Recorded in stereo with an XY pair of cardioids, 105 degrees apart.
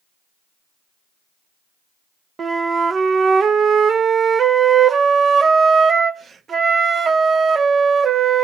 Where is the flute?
45° right, 0.7 m.